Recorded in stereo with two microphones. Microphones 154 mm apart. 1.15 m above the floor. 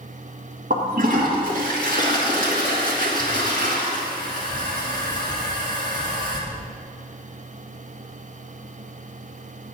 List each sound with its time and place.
0.7 s a toilet flushing: 65° right (ahead or behind), 1.8 m